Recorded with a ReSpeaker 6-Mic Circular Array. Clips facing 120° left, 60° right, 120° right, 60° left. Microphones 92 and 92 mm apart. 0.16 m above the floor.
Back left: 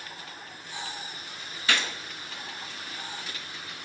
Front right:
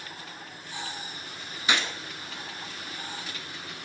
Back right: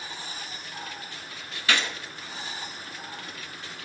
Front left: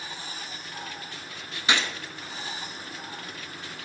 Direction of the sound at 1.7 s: 5° left.